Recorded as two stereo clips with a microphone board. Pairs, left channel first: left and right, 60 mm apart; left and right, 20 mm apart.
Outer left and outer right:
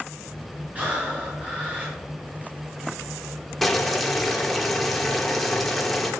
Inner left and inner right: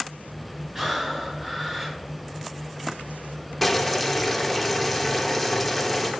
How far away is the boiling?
About 1.1 m.